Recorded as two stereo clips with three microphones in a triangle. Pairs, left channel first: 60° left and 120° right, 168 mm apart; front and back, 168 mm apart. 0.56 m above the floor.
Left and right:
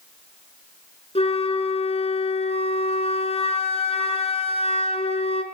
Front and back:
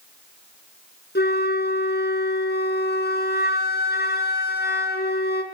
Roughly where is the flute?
Ahead.